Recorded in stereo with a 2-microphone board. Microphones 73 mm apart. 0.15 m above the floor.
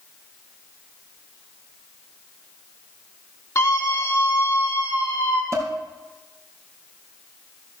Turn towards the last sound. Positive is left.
turn(degrees=-35)  # may be behind; listen again after turning